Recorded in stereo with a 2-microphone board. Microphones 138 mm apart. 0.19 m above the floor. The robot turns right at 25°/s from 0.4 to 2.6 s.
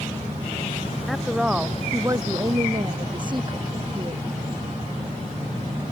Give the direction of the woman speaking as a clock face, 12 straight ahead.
6 o'clock.